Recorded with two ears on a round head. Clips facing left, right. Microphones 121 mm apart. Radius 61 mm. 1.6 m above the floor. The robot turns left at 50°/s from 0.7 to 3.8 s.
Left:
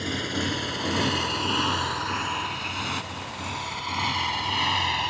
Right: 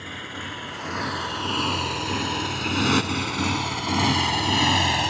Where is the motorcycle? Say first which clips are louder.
Left 7 dB; 45° left (ahead or behind); by 5.1 s 55° right (ahead or behind).